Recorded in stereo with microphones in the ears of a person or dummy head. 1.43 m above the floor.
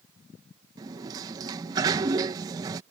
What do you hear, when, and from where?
0.8 s a sliding door: 20° right (ahead or behind)